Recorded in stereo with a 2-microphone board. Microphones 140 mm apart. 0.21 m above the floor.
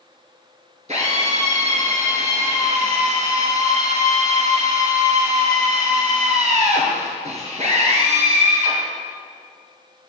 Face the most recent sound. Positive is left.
turn(degrees=-55)  # may be behind; listen again after turning